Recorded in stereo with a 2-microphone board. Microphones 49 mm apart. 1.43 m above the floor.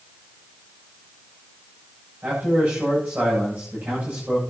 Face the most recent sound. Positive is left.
turn(degrees=-30)  # may be behind; listen again after turning